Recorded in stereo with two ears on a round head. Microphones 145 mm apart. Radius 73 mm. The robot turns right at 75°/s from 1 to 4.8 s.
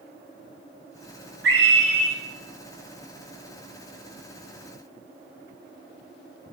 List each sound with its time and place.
1.4 s a scream: 75° right, 5 m; by 2.1 s 20° right, 5 m